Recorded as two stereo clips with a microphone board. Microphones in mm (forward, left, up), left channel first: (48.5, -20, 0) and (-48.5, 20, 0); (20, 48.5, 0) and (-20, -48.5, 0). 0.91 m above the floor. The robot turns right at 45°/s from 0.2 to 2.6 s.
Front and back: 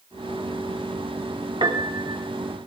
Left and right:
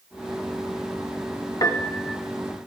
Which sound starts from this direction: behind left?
A piano, at 1.6 s.